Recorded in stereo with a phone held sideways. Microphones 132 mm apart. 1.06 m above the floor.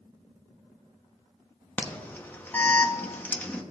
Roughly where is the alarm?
Centre.